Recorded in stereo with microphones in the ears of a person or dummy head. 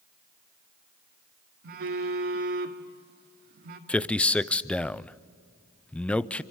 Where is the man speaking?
5° left (ahead or behind), 0.5 m.